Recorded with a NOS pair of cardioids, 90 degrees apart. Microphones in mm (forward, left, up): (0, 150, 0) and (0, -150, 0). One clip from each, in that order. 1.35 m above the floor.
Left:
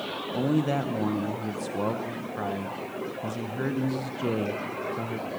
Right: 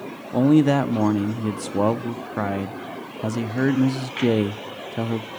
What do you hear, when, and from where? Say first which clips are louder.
0.3 s a man speaking: right 10 dB; 45° right, 0.7 m